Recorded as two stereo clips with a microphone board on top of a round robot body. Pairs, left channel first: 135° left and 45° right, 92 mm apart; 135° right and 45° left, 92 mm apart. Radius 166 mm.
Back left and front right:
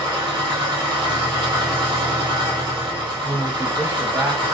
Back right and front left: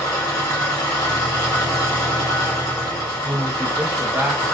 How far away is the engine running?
About 0.8 m.